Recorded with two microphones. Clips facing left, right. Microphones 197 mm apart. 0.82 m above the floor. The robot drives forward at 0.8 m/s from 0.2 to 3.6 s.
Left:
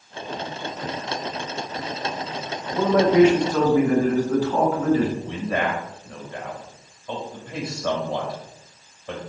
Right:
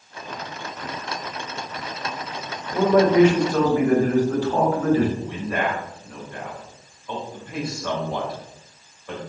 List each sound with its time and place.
2.7 s a man speaking: 50° right (ahead or behind), 3.5 m; by 5.1 s 40° right (ahead or behind), 4 m
5.2 s a man speaking: 25° left (ahead or behind), 3.5 m